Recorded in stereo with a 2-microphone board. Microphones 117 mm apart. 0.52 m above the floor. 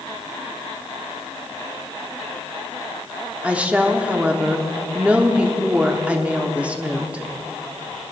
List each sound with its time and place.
3.4 s a woman speaking: 10° right (ahead or behind), 0.9 m